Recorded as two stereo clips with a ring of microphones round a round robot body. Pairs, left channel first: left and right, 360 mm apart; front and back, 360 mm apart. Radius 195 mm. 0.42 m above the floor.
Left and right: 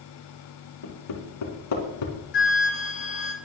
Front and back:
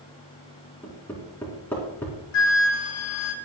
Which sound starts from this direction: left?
Hammering, at 0.8 s.